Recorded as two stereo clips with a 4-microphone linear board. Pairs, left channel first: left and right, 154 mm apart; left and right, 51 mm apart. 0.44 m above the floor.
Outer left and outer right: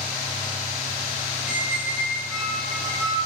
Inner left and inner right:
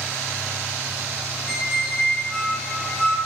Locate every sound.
1.5 s a squeak: centre (ahead or behind), 1.0 m